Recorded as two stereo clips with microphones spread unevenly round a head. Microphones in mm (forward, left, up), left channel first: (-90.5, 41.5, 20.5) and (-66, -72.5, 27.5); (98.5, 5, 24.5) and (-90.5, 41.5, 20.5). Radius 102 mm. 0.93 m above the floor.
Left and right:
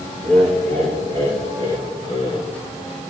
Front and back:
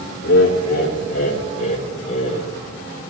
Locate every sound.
0.2 s laughter: 20° left, 3 m; by 2.5 s 45° left, 3.5 m